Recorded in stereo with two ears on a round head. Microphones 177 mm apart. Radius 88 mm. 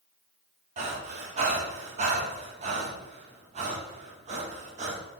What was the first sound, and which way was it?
Breathing, 35° right (ahead or behind).